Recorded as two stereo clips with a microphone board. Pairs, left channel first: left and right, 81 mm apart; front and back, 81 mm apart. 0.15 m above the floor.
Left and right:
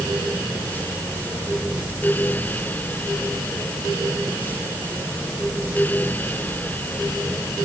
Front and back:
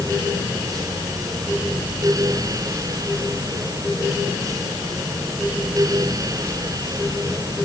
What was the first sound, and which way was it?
Only background noise.